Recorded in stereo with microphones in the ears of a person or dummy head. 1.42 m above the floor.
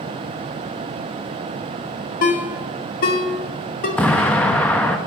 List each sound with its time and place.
2.2 s a ringtone: 50° left (ahead or behind), 1.2 m
4.0 s an explosion: 10° left (ahead or behind), 0.8 m